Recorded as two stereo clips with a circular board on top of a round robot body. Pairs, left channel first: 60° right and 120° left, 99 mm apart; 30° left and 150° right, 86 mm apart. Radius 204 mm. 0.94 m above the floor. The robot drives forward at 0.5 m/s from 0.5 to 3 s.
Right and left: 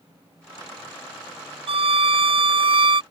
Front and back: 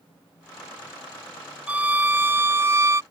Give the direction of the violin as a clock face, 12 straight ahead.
7 o'clock.